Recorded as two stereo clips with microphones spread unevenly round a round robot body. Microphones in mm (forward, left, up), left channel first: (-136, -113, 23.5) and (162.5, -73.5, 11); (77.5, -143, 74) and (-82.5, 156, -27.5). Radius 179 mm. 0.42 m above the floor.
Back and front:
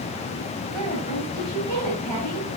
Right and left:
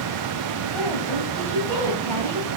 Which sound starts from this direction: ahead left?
A woman speaking, at 0.7 s.